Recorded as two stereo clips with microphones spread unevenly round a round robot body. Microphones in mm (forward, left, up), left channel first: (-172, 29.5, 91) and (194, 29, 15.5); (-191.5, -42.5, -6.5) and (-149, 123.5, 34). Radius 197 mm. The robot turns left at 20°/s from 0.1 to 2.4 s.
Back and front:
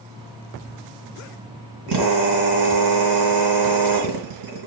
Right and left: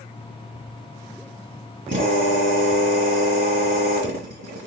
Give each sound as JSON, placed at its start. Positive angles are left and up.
{"t": 1.9, "sound": "a drill", "azimuth_deg": 30, "distance_m": 2.5}